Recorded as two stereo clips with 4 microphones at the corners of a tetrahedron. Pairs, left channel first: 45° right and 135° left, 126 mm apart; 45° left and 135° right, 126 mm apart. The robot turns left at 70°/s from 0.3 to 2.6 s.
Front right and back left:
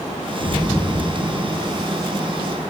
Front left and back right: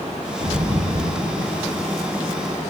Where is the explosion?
80° right, 3 m; by 1.9 s 175° left, 3 m.